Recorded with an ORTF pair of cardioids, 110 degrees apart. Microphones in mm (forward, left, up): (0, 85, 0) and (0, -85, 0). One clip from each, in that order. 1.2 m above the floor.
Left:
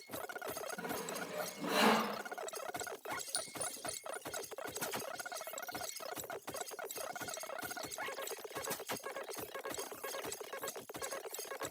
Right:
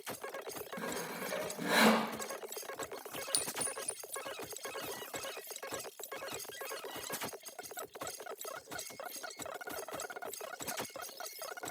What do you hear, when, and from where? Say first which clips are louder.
0.8 s sawing: right 1 dB; 60° right, 5 m
3.3 s a clink: right 4 dB; 35° right, 0.9 m